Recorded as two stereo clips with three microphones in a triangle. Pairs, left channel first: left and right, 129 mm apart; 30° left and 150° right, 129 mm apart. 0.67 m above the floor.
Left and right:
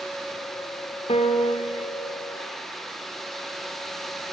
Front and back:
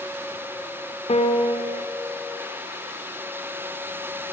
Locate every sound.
1.1 s a piano: 55° left, 2.5 m